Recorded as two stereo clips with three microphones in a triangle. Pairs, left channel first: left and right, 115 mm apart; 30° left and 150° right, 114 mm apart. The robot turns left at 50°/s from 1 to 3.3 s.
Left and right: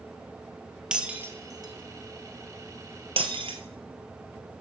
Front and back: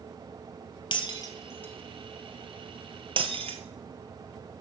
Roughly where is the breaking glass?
Ahead.